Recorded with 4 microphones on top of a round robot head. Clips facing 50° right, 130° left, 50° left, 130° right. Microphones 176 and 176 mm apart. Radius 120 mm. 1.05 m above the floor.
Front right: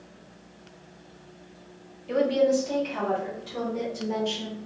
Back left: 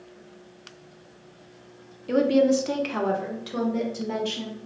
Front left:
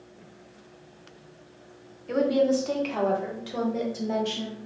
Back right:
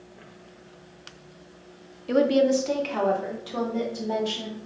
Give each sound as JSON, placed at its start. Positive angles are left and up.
{"t": 2.1, "sound": "a woman speaking", "azimuth_deg": 175, "distance_m": 0.5}